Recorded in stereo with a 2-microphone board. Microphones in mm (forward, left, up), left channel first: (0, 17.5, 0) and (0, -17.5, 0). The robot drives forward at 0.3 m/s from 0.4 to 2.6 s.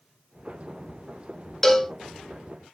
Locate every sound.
1.6 s a cowbell: 10° left (ahead or behind), 0.7 m